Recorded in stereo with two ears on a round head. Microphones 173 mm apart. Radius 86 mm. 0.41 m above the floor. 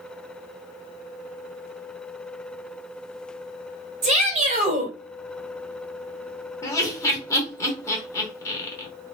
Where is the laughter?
15° left (ahead or behind), 1.1 m.